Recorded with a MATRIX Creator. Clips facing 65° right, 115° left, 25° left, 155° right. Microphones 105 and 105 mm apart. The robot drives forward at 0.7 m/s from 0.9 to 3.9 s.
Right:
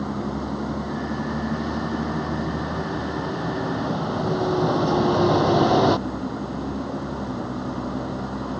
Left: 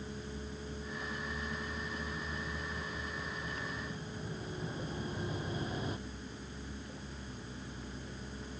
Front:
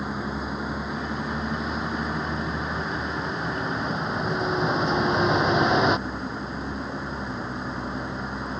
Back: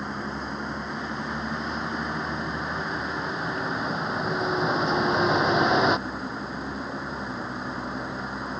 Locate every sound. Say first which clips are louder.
0.0 s a vehicle: right 17 dB, front 2 dB; 65° right